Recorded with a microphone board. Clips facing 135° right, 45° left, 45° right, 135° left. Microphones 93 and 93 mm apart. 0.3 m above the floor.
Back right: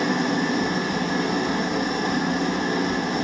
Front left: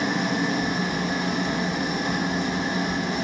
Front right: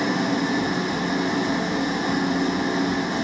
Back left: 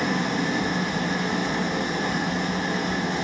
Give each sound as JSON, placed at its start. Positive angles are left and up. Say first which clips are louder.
{"t": 0.0, "sound": "an engine running", "louder": "back right 2 dB, front right 2 dB", "azimuth_deg": -120, "distance_m": 9.0}